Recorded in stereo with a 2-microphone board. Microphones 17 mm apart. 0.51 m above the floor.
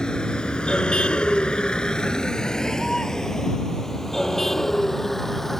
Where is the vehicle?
50° left (ahead or behind); by 5.6 s 25° left (ahead or behind).